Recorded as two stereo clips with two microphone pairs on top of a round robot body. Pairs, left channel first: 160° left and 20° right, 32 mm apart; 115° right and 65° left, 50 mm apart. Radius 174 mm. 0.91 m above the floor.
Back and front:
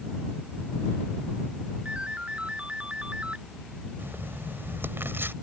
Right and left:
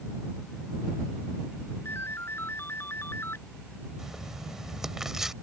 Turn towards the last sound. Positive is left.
turn(degrees=-15)